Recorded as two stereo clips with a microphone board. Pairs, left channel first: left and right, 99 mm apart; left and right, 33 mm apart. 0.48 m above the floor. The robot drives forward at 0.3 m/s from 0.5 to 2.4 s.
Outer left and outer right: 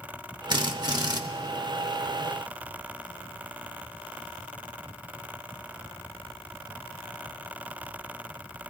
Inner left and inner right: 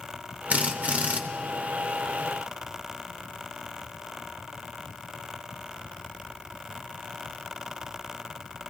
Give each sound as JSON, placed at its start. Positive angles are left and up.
{"t": 0.5, "sound": "a drill", "side_deg": -50, "distance_m": 0.9}